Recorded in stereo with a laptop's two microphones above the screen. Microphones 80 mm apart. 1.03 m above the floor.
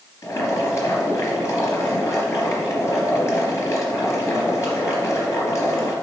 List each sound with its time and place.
0.2 s boiling: 40° left (ahead or behind), 3.5 m